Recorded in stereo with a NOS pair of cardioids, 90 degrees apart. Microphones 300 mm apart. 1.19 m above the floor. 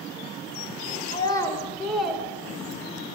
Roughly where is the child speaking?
Ahead.